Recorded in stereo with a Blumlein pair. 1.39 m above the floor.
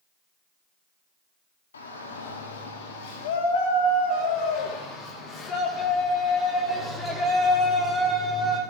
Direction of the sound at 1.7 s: 70° left.